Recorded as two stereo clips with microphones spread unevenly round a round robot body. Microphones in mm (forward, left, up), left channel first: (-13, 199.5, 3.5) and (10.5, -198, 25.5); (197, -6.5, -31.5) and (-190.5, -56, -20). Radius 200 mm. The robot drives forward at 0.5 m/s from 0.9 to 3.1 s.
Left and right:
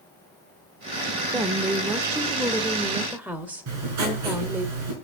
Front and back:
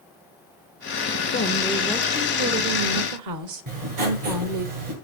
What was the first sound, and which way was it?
A woman speaking, 10° right.